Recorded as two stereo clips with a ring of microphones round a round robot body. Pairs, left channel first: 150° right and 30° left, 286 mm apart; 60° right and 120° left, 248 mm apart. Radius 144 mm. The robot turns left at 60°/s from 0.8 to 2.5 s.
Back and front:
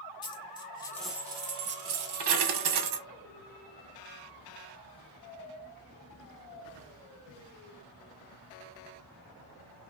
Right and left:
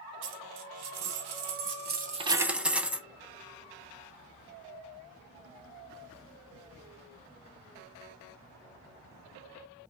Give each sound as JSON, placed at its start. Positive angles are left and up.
{"t": 0.2, "sound": "a dropped coin", "azimuth_deg": 135, "distance_m": 0.7}